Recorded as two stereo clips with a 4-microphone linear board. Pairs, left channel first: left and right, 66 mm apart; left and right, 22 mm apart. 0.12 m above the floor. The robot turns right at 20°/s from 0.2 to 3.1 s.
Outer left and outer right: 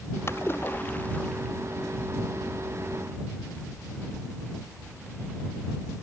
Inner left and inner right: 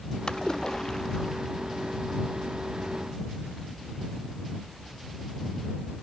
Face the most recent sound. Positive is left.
turn(degrees=-165)